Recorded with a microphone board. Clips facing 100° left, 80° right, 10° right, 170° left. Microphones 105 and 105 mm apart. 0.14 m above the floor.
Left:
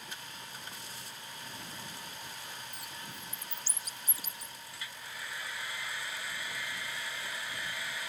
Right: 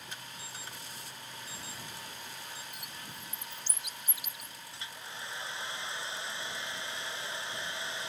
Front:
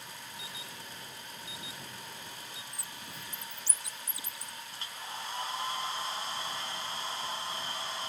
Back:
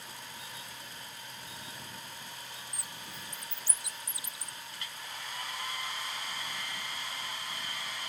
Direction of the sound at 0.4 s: 5° left.